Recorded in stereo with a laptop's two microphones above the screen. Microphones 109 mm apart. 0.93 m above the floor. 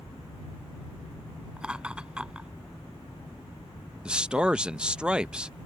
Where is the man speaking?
10° right (ahead or behind).